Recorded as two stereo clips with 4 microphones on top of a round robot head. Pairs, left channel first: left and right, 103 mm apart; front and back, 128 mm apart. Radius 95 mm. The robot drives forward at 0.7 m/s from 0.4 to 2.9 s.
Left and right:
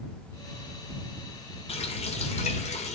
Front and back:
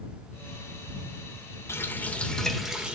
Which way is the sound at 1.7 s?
70° left.